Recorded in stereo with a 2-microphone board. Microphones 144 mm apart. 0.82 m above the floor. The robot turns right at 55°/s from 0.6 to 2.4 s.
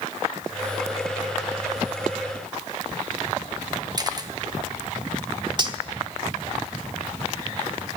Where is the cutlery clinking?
30° right (ahead or behind), 1.0 m.